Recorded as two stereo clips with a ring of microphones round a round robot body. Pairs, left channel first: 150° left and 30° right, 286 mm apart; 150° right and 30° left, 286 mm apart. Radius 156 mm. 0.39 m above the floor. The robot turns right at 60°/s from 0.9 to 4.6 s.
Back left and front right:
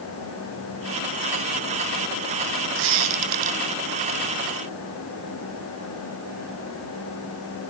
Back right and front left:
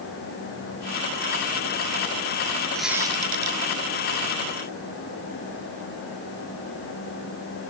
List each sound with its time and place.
2.8 s a squeak: 65° right, 0.5 m; by 3.6 s 15° right, 0.5 m